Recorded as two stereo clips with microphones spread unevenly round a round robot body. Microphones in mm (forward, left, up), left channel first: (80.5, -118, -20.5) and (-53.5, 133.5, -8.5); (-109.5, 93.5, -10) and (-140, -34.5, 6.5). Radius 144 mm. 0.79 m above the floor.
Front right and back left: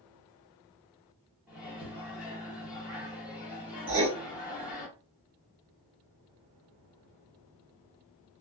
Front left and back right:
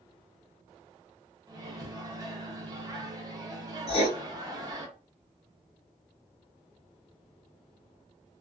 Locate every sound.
1.5 s a microwave: 155° right, 0.7 m
3.9 s writing: 90° left, 1.3 m